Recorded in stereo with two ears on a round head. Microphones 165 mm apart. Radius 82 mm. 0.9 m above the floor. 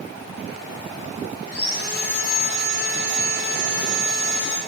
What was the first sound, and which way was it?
Sawing, 60° left (ahead or behind).